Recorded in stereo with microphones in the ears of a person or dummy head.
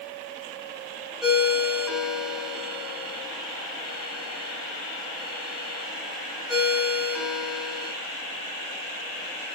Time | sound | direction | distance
1.2 | a ringtone | 5° right (ahead or behind) | 5 m